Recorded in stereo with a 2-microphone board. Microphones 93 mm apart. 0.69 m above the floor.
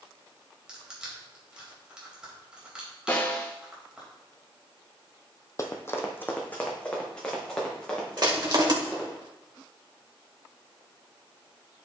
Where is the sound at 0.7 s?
10° right (ahead or behind), 3 m.